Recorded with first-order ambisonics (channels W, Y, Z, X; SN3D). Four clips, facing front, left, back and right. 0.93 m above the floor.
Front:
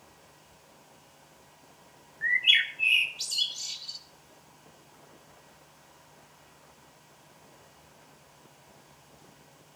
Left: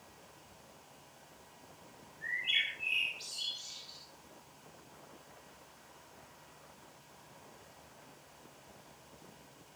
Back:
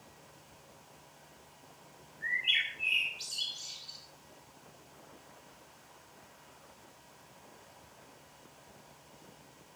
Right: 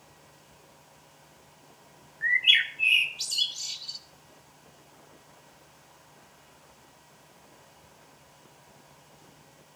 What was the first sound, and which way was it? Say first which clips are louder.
A bird: right 11 dB, front 7 dB; 50° right.